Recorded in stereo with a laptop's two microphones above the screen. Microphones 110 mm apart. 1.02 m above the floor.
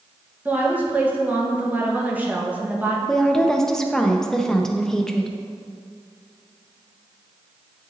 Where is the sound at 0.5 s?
15° right (ahead or behind), 1.2 m.